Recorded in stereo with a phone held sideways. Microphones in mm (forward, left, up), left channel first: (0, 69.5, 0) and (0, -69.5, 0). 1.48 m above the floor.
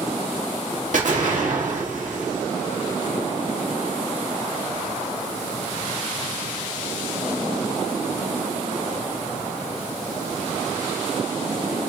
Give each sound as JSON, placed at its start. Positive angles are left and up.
{"t": 0.9, "sound": "an explosion", "side_deg": -65, "distance_m": 1.5}